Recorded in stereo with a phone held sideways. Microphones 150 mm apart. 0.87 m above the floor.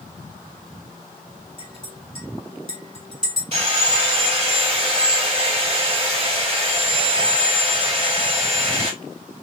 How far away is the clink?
About 3 m.